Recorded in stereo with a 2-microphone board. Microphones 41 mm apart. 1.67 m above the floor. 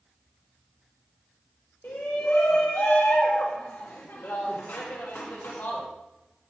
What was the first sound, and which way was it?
A shout, 65° left (ahead or behind).